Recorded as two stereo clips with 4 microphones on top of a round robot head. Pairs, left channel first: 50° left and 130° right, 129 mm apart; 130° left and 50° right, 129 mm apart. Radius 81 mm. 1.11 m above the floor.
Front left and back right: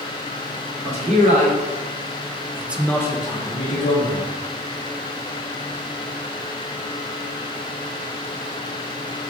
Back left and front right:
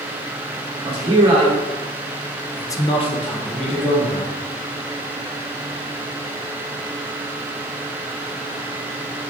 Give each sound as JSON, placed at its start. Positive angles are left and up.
{"t": 0.8, "sound": "a man speaking", "azimuth_deg": -95, "distance_m": 2.0}